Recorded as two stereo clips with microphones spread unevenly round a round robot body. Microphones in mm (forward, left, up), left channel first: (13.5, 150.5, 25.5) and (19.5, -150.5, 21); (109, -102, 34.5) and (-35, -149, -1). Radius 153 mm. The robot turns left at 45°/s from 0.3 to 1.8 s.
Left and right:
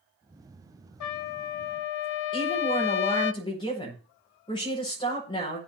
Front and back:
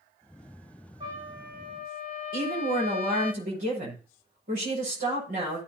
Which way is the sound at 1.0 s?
125° left.